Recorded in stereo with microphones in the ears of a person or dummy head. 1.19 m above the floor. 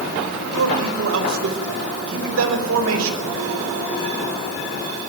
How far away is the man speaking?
About 5.5 m.